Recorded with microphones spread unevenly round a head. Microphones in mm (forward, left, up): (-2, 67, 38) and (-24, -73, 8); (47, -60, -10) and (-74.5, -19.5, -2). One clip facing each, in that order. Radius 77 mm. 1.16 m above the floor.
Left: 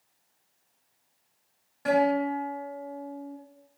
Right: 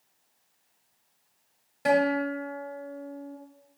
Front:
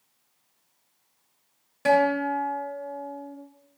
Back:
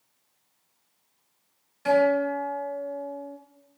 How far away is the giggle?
No giggle in this recording.